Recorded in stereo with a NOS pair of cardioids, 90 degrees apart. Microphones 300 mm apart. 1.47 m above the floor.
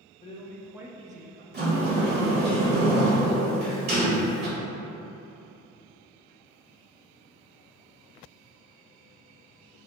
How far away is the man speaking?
About 0.7 m.